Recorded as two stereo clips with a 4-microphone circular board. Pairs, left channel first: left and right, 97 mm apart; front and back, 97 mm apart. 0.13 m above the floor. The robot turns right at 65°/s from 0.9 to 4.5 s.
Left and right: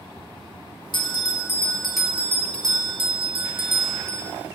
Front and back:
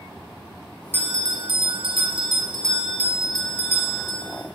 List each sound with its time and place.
0.9 s a bell: 115° left, 0.7 m; by 4.3 s 25° right, 0.7 m